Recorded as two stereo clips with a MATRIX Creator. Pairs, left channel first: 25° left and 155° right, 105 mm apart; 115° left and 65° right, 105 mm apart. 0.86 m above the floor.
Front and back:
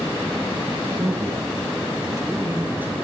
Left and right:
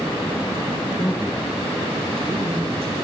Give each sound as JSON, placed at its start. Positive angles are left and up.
{"t": 1.0, "sound": "a man speaking", "azimuth_deg": 170, "distance_m": 1.0}